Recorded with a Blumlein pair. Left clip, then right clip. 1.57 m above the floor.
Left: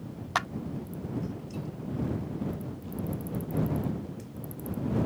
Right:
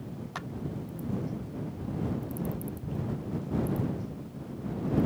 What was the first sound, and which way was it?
A clap, 60° left.